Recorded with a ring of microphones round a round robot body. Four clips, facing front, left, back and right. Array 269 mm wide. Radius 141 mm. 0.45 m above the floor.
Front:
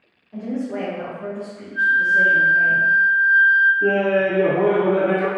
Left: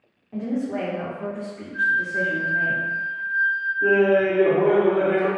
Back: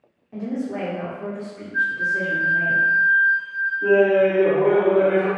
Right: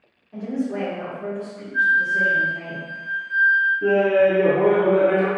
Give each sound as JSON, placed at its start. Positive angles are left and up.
{"t": 0.3, "sound": "a woman speaking", "azimuth_deg": 130, "distance_m": 1.4}
{"t": 1.7, "sound": "a flute", "azimuth_deg": -160, "distance_m": 1.2}
{"t": 3.8, "sound": "laughter", "azimuth_deg": -20, "distance_m": 1.6}